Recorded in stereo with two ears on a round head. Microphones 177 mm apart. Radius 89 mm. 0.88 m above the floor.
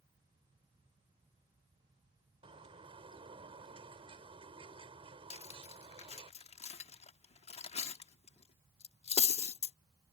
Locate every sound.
2.4 s a bird: 30° right (ahead or behind)
5.3 s cutlery clinking: 30° left (ahead or behind)